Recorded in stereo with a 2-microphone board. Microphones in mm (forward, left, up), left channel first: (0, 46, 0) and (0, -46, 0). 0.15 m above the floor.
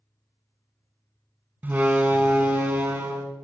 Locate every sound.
1.6 s a door slam: 20° right (ahead or behind), 0.7 m